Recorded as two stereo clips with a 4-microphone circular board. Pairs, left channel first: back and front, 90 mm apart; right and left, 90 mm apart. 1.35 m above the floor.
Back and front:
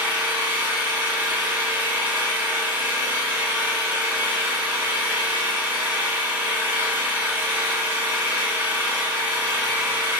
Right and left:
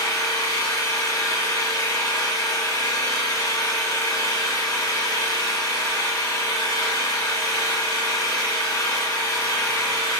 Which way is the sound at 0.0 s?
60° right.